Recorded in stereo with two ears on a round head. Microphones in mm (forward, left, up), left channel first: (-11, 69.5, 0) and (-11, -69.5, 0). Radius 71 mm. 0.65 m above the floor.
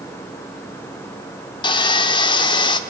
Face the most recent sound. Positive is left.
turn(degrees=30)  # may be behind; listen again after turning